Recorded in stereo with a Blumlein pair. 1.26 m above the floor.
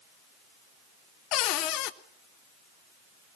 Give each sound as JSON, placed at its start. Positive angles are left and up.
{"t": 1.3, "sound": "a cupboard door", "azimuth_deg": 40, "distance_m": 1.1}